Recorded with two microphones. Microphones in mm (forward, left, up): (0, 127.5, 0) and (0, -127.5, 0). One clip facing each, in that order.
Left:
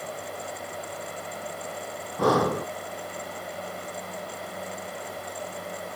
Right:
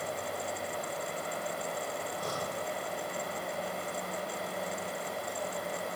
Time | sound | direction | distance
2.2 | breathing | 80° left | ?